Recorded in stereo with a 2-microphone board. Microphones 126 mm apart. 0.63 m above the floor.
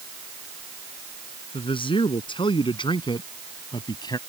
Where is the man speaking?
45° left (ahead or behind); by 4.2 s 35° left (ahead or behind).